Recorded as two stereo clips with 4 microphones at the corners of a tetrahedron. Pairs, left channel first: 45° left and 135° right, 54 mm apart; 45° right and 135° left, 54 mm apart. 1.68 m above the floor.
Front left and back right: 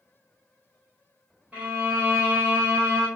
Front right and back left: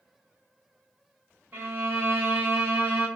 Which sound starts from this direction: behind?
A violin, at 1.5 s.